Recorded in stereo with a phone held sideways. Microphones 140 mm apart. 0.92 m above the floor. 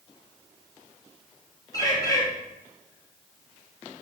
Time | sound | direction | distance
1.7 | a bird | 25° left (ahead or behind) | 2.5 m